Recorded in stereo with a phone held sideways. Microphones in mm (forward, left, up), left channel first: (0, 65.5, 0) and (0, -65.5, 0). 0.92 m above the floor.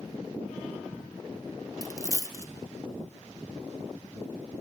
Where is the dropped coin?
25° left (ahead or behind), 0.5 m.